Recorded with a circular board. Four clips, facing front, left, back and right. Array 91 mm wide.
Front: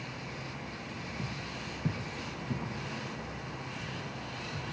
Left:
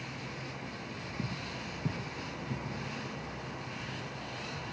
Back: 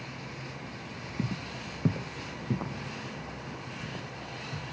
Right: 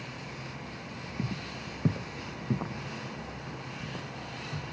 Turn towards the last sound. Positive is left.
turn(degrees=-125)